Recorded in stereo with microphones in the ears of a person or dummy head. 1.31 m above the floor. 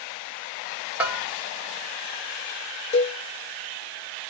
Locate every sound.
1.0 s a bell: 10° right (ahead or behind), 1.2 m
2.9 s a cowbell: 30° left (ahead or behind), 0.7 m